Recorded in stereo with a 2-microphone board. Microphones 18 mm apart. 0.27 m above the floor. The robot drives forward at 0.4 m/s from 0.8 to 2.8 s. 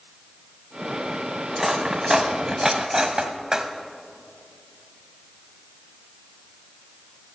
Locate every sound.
1.5 s cutlery clinking: 30° right (ahead or behind), 1.2 m; by 3.7 s 40° right (ahead or behind), 0.9 m